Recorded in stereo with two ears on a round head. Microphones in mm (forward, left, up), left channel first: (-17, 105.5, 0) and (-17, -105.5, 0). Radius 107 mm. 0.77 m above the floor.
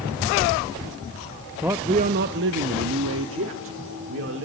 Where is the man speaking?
5° right (ahead or behind), 0.5 m; by 4.5 s 60° right (ahead or behind), 1.9 m.